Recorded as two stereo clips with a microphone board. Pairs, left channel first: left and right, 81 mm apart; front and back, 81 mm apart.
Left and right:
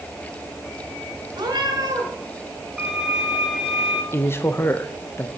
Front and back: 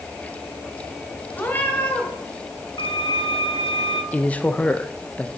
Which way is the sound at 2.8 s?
10° right.